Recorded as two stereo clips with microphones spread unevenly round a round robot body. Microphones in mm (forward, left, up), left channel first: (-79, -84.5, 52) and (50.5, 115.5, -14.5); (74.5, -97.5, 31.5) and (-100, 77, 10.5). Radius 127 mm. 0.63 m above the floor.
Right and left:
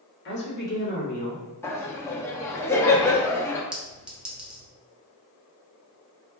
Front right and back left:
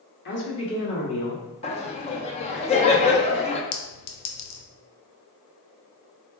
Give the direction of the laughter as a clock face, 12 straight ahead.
12 o'clock.